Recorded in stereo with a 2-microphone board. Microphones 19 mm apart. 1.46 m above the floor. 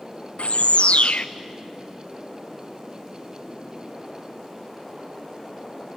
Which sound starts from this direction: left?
A bird, at 0.4 s.